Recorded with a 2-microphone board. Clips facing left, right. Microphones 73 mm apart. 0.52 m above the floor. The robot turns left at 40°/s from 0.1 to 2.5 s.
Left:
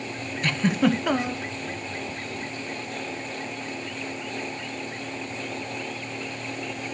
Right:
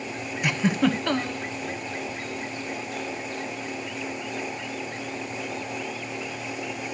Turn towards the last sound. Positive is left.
turn(degrees=110)